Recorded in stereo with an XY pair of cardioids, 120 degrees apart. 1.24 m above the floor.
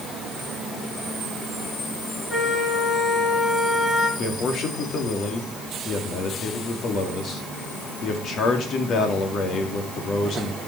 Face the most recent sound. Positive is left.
turn(degrees=55)